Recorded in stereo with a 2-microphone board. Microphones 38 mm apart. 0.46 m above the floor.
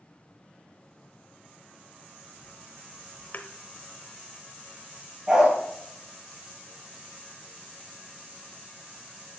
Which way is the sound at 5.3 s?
15° right (ahead or behind).